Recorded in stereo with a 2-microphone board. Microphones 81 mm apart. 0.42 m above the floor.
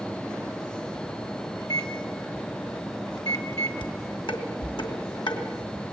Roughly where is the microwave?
Left.